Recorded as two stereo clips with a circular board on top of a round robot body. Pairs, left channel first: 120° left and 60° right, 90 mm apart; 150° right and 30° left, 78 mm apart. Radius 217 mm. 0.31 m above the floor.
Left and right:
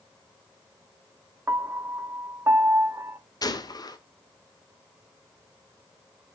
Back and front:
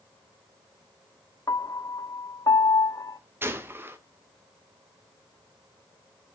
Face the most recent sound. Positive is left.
turn(degrees=85)